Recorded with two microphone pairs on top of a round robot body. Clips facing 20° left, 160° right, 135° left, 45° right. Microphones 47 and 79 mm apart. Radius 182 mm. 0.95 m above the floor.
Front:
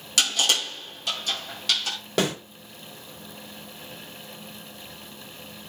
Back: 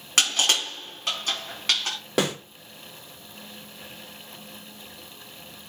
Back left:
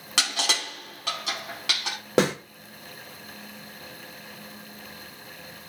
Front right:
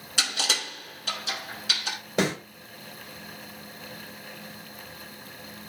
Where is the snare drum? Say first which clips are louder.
Even, back left 4 dB; 120° left, 3.5 m.